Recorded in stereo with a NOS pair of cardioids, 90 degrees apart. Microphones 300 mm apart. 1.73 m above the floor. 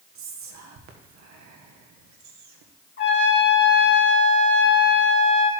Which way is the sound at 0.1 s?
70° right.